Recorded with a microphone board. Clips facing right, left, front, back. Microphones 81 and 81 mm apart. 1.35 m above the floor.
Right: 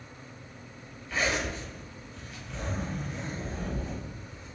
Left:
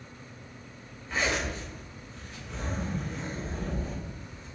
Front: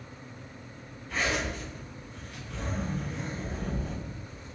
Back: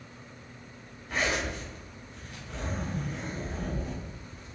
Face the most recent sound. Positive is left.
turn(degrees=155)